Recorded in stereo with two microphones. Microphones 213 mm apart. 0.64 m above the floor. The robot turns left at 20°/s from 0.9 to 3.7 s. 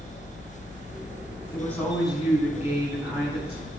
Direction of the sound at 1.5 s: 10° left.